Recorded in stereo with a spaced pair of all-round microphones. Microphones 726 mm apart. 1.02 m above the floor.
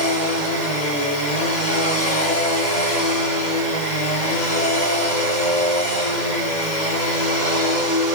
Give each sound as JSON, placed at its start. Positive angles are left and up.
{"t": 0.0, "sound": "a machine running", "side_deg": 80, "distance_m": 4.5}